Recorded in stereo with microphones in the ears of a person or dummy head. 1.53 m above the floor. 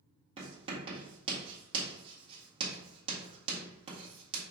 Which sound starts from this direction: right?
Writing, at 0.4 s.